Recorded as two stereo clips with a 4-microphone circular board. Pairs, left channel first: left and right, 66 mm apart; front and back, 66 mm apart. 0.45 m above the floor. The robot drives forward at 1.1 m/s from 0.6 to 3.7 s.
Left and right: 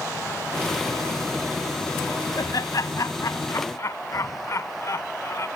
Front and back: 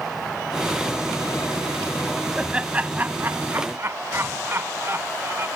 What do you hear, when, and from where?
2.4 s laughter: 100° left; by 5.5 s 130° left